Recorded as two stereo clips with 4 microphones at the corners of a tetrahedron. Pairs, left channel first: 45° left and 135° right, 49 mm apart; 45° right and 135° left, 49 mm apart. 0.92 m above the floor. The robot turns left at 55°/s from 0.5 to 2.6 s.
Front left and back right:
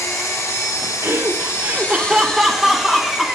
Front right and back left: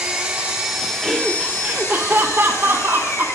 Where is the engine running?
65° left, 1.7 m; by 3.4 s 50° right, 1.7 m.